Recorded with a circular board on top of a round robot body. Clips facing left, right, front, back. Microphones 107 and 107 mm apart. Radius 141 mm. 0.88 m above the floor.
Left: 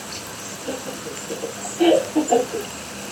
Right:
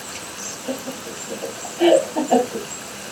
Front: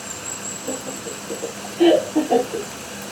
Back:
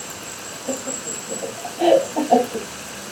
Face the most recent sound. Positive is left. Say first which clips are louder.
# right 1 dB, back 1 dB
turn(degrees=35)